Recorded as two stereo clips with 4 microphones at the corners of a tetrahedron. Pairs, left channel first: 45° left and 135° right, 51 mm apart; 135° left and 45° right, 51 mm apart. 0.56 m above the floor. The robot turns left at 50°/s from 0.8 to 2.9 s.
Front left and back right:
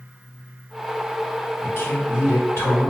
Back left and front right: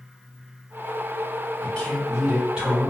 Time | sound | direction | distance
1.6 | a man speaking | 75° left | 1.8 m